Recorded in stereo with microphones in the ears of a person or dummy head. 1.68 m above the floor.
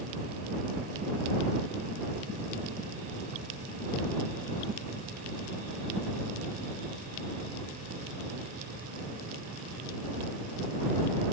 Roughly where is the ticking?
No ticking in this recording.